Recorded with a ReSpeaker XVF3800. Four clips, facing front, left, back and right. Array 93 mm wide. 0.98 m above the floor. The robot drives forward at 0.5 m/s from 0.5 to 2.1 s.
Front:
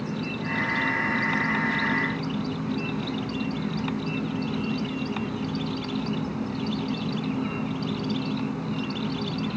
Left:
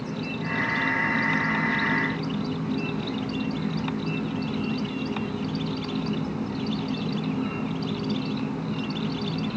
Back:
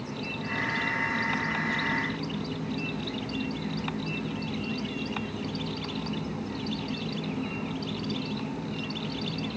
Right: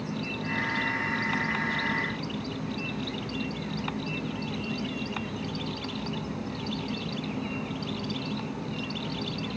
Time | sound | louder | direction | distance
0.0 | an insect | left 2 dB, front 5 dB | 30° left | 3.5 m